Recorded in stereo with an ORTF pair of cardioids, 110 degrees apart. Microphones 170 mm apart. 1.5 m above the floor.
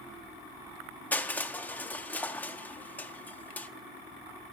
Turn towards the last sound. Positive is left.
turn(degrees=10)